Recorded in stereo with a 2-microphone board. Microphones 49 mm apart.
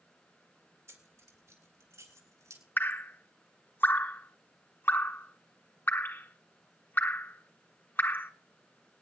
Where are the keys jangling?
75° right (ahead or behind), 2.5 m; by 2.6 s 90° right, 4 m.